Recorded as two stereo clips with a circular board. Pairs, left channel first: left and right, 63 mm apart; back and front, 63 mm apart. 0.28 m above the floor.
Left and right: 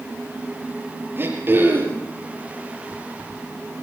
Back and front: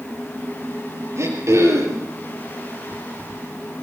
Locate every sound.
1.2 s throat clearing: 40° right, 5.5 m